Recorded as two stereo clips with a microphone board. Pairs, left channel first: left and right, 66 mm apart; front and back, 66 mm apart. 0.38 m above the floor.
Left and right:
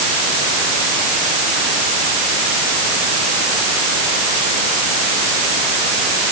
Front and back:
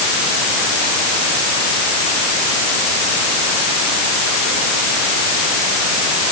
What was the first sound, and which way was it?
Only background noise.